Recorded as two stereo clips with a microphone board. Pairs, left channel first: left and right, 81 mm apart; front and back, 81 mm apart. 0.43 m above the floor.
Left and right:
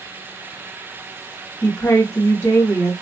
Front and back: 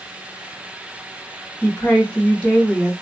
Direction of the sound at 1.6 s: 70° left.